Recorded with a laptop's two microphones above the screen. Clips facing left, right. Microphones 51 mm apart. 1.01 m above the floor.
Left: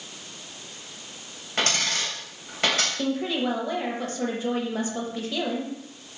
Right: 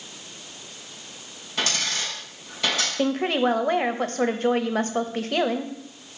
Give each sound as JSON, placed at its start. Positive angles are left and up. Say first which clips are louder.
{"t": 1.6, "sound": "a dropped coin", "louder": "left 1 dB", "side_deg": 50, "distance_m": 3.0}
{"t": 3.0, "sound": "a woman speaking", "louder": "right 4 dB", "side_deg": -55, "distance_m": 0.8}